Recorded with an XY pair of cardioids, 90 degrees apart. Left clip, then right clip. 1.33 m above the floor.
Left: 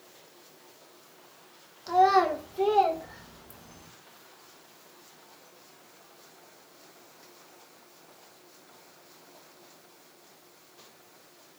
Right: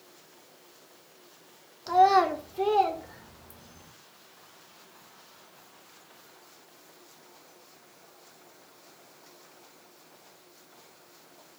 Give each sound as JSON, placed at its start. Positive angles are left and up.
{"t": 1.9, "sound": "a child speaking", "azimuth_deg": -20, "distance_m": 0.8}